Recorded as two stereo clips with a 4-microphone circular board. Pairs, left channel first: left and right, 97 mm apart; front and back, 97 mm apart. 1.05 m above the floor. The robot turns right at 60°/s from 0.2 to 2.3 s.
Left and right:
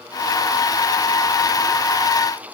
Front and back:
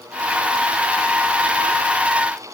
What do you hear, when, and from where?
Only background noise.